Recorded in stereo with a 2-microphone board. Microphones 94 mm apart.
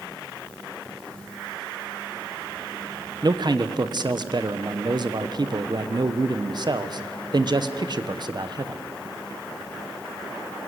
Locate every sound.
3.2 s a man speaking: 50° right (ahead or behind), 1.0 m